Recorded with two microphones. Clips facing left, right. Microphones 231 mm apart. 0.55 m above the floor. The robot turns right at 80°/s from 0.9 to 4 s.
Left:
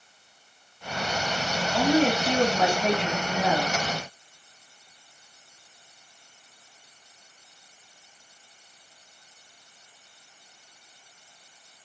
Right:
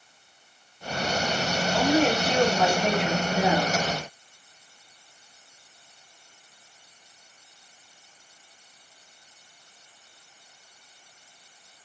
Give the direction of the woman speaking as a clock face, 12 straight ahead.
9 o'clock.